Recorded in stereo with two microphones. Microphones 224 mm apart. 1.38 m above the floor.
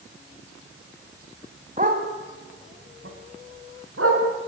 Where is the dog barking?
35° right (ahead or behind), 3 m; by 4.2 s 80° right, 5 m.